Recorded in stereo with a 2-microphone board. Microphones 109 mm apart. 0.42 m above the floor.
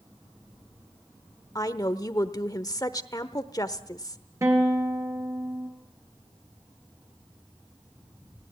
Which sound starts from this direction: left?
A woman speaking, at 1.6 s.